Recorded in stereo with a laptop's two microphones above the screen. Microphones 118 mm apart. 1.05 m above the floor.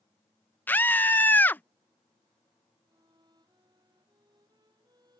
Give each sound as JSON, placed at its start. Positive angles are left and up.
{"t": 0.7, "sound": "a scream", "side_deg": 15}
{"t": 2.9, "sound": "a violin", "side_deg": -35}